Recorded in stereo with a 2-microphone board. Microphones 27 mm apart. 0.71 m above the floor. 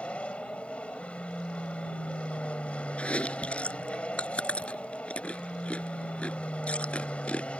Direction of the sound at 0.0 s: 50° left (ahead or behind).